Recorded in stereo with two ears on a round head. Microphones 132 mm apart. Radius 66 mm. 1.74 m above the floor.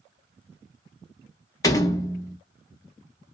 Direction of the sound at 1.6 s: 20° left (ahead or behind).